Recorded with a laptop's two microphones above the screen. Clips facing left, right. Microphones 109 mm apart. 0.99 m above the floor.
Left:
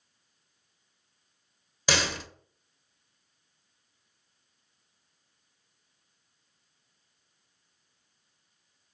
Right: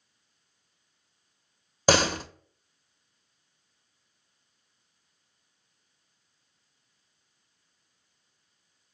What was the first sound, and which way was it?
A door slam, 45° right (ahead or behind).